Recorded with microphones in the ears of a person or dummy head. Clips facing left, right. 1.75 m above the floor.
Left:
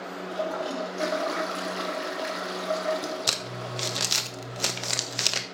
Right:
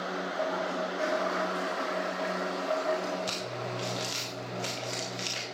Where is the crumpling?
85° left, 1.1 m.